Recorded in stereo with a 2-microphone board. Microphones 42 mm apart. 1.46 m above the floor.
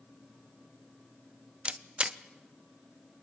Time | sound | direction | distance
1.6 | a camera shutter | 30° right (ahead or behind) | 0.5 m